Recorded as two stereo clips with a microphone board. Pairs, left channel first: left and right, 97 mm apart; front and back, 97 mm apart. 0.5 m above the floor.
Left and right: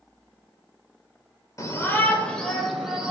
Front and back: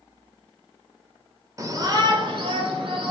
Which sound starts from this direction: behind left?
A shout, at 1.6 s.